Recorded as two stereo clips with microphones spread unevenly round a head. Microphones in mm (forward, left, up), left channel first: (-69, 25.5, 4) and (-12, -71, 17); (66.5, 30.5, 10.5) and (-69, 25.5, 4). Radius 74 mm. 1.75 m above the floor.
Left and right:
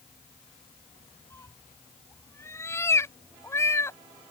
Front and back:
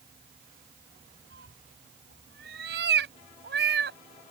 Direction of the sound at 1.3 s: 170° right.